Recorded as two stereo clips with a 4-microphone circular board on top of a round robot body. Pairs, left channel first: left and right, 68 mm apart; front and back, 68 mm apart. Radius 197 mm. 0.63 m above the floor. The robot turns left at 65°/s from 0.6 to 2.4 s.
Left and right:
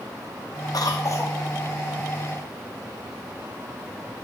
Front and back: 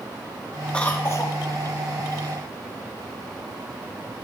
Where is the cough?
75° left, 0.9 m; by 1.4 s 35° left, 0.9 m.